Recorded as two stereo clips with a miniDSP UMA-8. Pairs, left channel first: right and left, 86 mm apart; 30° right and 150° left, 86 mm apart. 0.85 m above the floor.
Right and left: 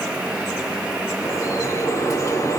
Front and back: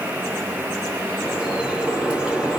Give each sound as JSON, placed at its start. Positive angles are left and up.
{"t": 1.2, "sound": "dripping", "azimuth_deg": -135, "distance_m": 1.3}